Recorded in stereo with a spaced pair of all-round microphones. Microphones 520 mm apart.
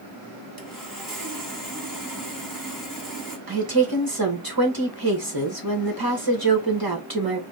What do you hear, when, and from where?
0.6 s sawing: 40° right (ahead or behind), 1.2 m
3.5 s a woman speaking: 45° right (ahead or behind), 1.4 m